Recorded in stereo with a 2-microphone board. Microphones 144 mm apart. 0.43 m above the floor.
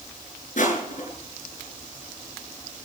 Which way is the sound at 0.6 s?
60° left (ahead or behind).